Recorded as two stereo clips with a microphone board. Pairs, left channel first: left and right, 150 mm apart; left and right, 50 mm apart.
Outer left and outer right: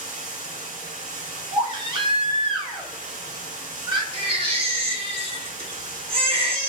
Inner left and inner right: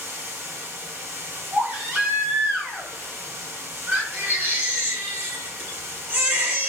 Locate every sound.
0.0 s running water: 60° right (ahead or behind), 1.4 m
1.5 s a baby crying: 35° right (ahead or behind), 0.8 m
4.1 s a baby crying: 35° right (ahead or behind), 1.0 m